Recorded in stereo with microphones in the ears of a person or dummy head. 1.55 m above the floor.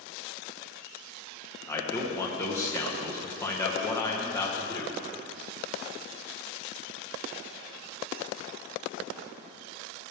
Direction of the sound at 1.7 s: 15° left (ahead or behind).